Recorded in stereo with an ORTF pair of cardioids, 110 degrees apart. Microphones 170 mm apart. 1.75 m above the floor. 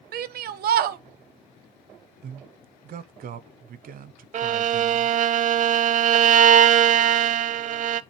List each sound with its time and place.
0.1 s a shout: 60° right, 0.9 m
2.2 s a man speaking: 60° right, 0.9 m
4.3 s a violin: 45° right, 0.7 m